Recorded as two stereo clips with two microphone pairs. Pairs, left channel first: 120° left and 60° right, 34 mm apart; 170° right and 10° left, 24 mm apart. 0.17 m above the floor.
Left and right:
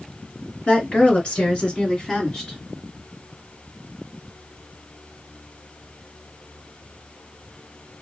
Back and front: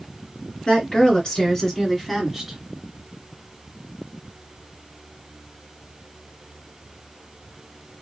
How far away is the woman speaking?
About 2.5 m.